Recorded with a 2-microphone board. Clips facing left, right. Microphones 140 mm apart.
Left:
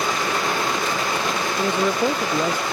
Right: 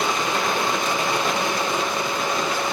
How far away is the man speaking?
About 0.6 m.